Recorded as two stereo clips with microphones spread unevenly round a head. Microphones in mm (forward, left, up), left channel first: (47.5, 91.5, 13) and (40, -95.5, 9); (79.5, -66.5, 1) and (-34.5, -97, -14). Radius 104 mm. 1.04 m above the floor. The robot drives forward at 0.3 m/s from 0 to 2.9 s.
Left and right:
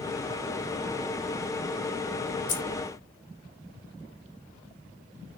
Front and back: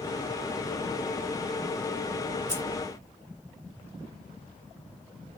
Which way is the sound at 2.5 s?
130° left.